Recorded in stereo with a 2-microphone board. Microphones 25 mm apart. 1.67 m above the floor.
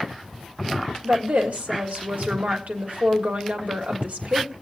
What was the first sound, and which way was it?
A woman speaking, 65° right (ahead or behind).